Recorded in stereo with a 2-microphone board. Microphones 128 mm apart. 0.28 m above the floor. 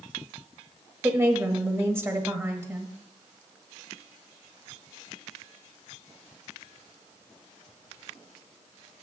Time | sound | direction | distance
1.0 | a woman speaking | 20° right (ahead or behind) | 1.2 m